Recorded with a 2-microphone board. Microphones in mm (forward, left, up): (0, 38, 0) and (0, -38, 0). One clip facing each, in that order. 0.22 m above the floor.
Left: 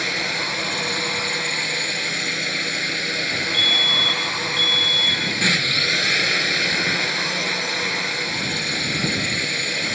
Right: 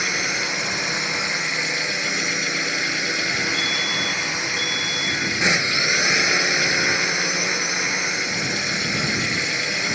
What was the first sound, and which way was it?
A drone, 20° right (ahead or behind).